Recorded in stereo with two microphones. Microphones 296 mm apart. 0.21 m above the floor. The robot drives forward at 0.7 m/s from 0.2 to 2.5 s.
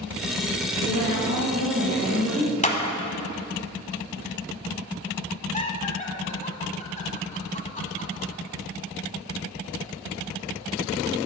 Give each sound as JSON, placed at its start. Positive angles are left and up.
{"t": 0.8, "sound": "a woman speaking", "side_deg": -20, "distance_m": 2.5}
{"t": 2.6, "sound": "a clap", "side_deg": 25, "distance_m": 1.1}
{"t": 5.5, "sound": "laughter", "side_deg": 25, "distance_m": 1.4}